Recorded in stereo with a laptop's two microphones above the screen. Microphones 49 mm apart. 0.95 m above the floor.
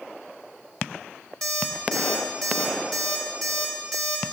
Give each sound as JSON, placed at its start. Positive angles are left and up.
{"t": 1.4, "sound": "an alarm clock", "side_deg": 5, "distance_m": 0.8}